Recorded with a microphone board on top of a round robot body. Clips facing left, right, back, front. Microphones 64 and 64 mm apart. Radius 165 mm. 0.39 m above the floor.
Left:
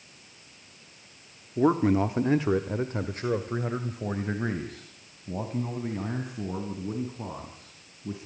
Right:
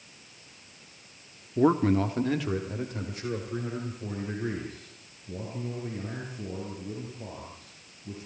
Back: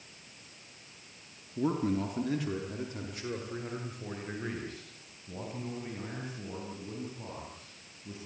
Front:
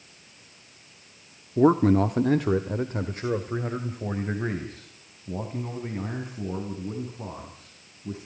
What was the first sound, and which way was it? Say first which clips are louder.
A man speaking: even, front 11 dB; 5° right.